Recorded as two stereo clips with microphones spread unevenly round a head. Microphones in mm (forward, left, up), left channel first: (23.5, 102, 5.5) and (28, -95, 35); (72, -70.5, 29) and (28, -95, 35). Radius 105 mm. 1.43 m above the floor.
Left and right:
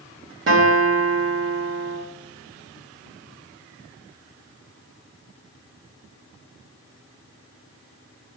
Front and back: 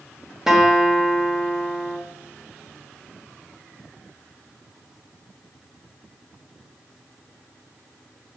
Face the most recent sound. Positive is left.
turn(degrees=-65)